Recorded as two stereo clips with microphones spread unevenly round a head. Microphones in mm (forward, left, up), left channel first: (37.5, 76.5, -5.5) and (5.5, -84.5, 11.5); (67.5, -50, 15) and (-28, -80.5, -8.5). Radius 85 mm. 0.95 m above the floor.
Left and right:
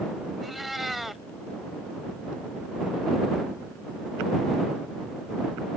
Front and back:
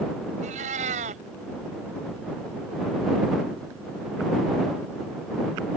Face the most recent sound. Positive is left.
turn(degrees=170)